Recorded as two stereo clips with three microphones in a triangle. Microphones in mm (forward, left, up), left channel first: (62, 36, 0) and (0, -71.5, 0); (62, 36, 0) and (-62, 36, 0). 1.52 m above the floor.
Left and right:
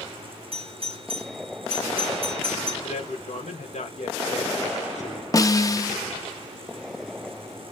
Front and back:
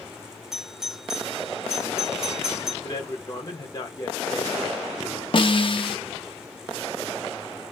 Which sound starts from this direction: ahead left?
A man speaking, at 2.8 s.